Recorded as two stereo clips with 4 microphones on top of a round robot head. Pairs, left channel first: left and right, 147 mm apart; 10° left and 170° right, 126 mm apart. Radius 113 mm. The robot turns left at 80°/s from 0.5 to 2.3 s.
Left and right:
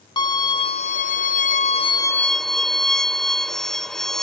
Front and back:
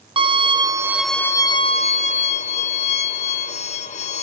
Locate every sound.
0.2 s a violin: 145° left, 0.7 m; by 4.2 s 5° left, 0.7 m